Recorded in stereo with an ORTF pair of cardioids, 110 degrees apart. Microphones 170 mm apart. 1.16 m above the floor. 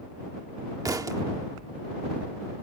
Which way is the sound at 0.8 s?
20° right.